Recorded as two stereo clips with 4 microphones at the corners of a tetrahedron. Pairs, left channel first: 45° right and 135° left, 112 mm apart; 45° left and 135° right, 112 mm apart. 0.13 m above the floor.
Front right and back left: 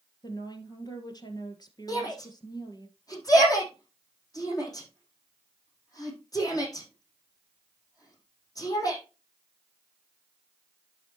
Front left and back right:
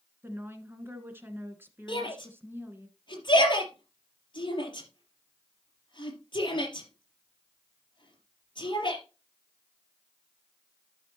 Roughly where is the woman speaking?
Right.